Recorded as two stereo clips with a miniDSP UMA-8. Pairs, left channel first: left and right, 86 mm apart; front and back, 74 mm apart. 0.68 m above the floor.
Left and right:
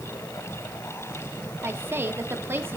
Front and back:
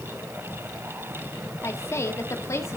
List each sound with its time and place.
1.6 s a woman speaking: 35° right, 1.4 m